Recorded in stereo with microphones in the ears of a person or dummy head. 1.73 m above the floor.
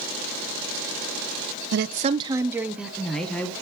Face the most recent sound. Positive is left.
turn(degrees=5)  # may be behind; listen again after turning